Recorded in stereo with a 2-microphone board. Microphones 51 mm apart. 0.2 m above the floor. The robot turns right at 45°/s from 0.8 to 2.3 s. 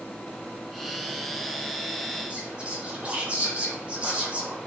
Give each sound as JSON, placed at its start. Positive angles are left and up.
{"t": 2.3, "sound": "whispering", "side_deg": -25, "distance_m": 1.3}